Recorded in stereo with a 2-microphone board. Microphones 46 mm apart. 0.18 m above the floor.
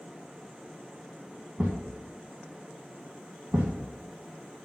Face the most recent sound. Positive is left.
turn(degrees=-15)  # may be behind; listen again after turning